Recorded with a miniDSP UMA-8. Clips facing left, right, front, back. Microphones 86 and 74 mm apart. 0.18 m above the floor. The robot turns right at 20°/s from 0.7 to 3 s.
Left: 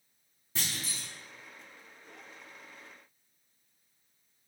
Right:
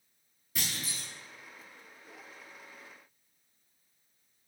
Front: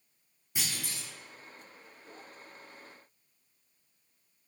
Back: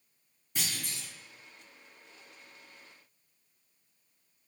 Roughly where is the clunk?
Left.